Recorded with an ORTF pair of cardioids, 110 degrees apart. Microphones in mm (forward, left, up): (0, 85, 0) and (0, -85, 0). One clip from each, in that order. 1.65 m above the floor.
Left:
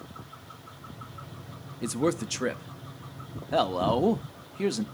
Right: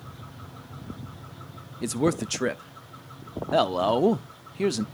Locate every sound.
1.8 s a man speaking: 15° right, 0.6 m